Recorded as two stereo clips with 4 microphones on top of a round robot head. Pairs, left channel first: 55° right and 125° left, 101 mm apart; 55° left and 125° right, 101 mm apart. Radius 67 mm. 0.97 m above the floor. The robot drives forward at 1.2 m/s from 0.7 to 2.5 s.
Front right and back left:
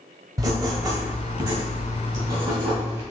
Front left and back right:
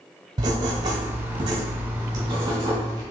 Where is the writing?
175° right, 1.1 m; by 3.0 s straight behind, 3 m.